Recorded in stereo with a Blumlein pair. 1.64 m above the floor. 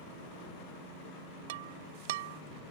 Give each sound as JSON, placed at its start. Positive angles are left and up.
{"t": 1.5, "sound": "breaking glass", "azimuth_deg": -55}